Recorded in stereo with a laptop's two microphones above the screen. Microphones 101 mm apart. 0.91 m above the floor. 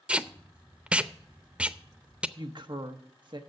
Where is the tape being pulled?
10° right (ahead or behind), 0.5 m.